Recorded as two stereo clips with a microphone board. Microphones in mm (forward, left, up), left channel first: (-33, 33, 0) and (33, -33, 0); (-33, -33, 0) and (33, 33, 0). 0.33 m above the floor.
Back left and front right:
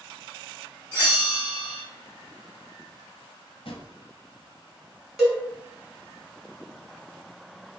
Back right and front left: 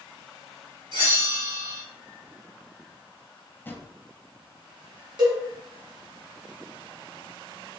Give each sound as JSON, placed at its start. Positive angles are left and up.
{"t": 0.9, "sound": "a bell", "azimuth_deg": 80, "distance_m": 2.5}
{"t": 3.6, "sound": "a drawer", "azimuth_deg": 155, "distance_m": 1.0}
{"t": 5.2, "sound": "a cowbell", "azimuth_deg": 45, "distance_m": 2.0}